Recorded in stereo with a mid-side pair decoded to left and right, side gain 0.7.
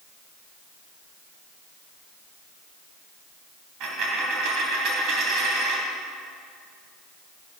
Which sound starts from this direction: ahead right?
A dropped coin, at 3.8 s.